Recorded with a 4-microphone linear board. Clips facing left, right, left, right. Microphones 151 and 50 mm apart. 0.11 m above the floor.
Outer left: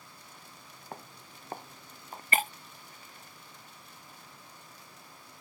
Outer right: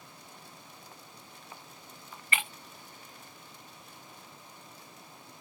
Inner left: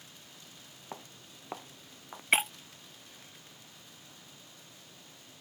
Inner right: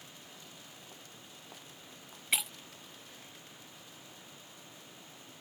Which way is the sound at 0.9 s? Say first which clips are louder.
Outer left 5 dB, inner left 5 dB; 60° left (ahead or behind).